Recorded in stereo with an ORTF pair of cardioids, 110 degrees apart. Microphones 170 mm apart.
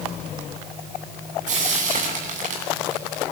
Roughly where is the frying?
Ahead right.